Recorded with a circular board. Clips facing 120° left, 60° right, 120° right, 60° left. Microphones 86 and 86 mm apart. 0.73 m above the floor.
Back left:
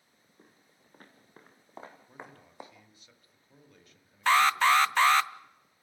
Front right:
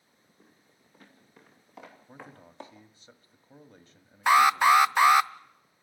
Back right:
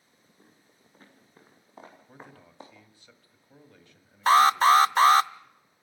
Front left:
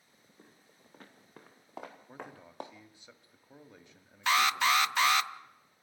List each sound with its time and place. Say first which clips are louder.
0.4 s footsteps: back left 1 dB, front left 1 dB; 85° left, 4 m; by 2.8 s 40° left, 2 m
2.1 s a man speaking: front right 1 dB, front left 2 dB; 10° right, 1.5 m
4.3 s an alarm: front right 3 dB, back right 9 dB; 125° right, 0.5 m